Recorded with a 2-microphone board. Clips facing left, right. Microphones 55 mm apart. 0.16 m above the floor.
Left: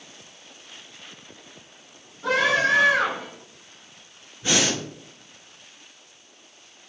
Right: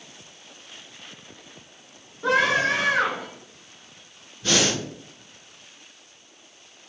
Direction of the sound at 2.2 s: 15° right (ahead or behind).